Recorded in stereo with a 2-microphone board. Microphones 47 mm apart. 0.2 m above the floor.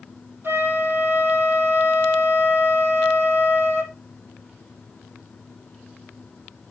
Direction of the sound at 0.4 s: 50° right (ahead or behind).